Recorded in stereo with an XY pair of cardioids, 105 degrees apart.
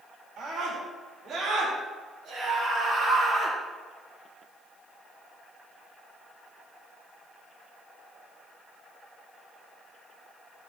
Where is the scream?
65° right, 5 m; by 3.6 s 40° right, 3.5 m.